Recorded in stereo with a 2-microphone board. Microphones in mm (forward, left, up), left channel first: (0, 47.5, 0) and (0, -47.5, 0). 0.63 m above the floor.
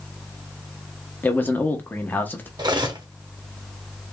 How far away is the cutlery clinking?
About 0.6 m.